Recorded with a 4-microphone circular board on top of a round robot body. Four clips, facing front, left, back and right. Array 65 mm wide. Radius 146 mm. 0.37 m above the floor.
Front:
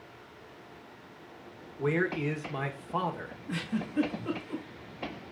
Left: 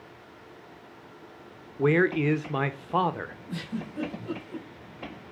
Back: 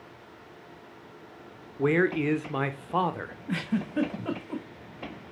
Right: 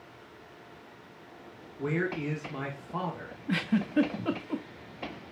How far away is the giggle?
About 1.5 m.